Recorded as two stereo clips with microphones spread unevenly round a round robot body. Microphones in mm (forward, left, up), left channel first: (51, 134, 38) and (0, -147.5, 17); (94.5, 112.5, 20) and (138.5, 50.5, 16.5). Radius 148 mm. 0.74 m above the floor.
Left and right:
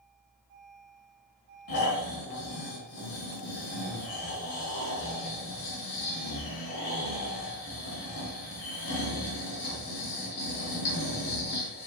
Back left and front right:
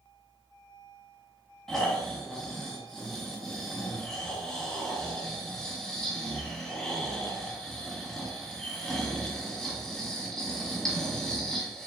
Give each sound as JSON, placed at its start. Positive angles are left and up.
{"t": 1.7, "sound": "snoring", "azimuth_deg": 45, "distance_m": 3.0}